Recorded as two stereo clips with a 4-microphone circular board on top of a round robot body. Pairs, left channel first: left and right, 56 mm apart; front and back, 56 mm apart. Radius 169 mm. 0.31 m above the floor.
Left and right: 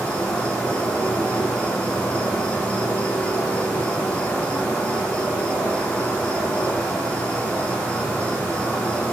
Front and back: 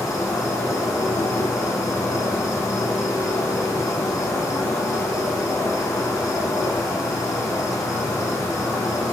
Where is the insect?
20° left, 5 m.